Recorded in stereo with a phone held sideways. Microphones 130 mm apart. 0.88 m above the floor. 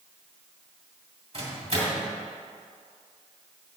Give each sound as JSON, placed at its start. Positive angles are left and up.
{"t": 1.3, "sound": "a microwave", "side_deg": -50, "distance_m": 1.8}